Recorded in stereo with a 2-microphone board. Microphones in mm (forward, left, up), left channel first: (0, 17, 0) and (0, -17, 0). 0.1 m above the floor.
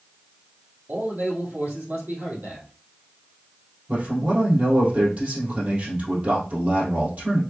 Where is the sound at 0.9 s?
60° right (ahead or behind), 3 m.